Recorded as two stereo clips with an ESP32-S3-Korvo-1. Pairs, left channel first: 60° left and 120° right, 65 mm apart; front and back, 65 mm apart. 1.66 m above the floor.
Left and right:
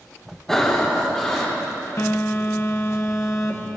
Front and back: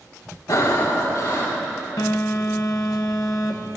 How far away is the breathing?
About 4 m.